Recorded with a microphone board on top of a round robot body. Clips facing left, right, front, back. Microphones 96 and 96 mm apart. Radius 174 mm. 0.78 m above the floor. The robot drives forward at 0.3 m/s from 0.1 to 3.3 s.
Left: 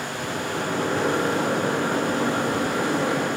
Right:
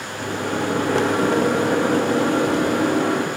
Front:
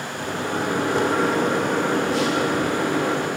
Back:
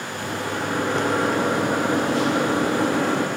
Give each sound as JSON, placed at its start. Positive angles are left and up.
{"t": 0.2, "sound": "a microwave", "azimuth_deg": -65, "distance_m": 0.8}